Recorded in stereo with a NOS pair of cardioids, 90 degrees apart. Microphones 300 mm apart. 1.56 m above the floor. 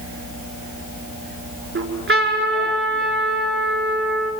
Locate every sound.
1.8 s a trumpet: 40° right, 6.5 m